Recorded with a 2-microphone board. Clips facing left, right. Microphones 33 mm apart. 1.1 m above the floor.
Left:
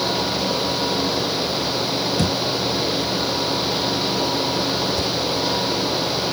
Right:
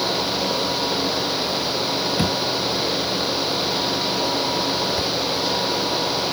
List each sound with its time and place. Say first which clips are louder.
2.2 s a thud: even; 20° right (ahead or behind)